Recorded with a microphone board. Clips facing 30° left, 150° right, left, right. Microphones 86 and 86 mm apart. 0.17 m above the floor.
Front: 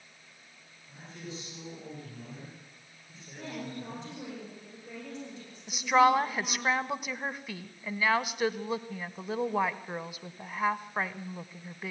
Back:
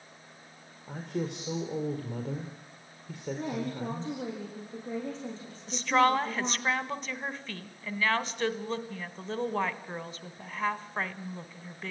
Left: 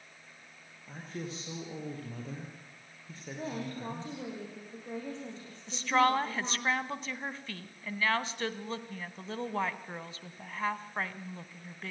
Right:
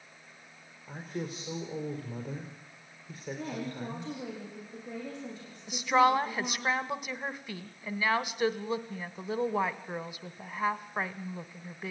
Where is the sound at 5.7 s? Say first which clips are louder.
Front 2 dB, right 3 dB; 35° right, 1.0 m.